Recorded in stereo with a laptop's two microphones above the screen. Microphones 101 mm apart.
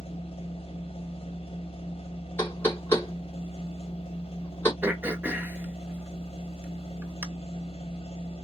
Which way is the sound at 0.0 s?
85° left.